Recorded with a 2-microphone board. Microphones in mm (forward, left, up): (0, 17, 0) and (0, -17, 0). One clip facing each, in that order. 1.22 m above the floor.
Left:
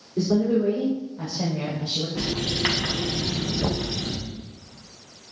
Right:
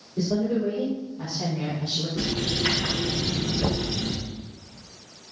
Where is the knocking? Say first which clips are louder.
Even; 10° left (ahead or behind), 0.8 m.